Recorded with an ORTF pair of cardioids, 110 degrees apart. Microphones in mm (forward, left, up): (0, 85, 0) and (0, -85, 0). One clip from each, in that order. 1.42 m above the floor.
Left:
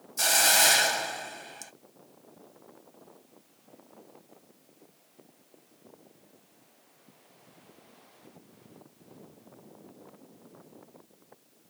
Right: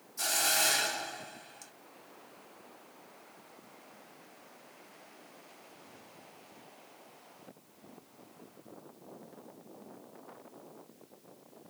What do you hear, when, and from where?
0.2 s a hiss: 50° left, 0.8 m